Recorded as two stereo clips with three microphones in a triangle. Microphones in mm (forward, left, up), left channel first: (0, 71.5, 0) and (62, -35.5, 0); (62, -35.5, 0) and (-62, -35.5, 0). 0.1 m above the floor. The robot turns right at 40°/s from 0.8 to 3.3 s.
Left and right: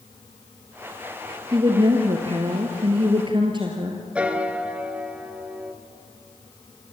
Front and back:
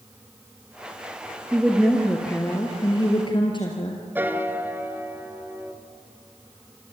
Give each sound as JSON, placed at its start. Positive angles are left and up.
{"t": 1.5, "sound": "a woman speaking", "azimuth_deg": -100, "distance_m": 2.5}
{"t": 4.2, "sound": "a piano", "azimuth_deg": -125, "distance_m": 1.6}